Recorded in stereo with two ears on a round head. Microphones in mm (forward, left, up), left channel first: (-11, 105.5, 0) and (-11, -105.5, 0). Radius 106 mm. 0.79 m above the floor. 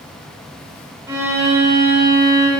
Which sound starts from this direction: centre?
A violin, at 1.1 s.